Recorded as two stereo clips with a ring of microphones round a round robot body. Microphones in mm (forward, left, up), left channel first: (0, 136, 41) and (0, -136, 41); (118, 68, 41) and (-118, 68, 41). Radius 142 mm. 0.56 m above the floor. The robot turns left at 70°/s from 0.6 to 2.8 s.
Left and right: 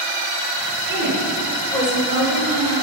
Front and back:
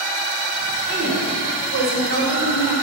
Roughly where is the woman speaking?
Behind right.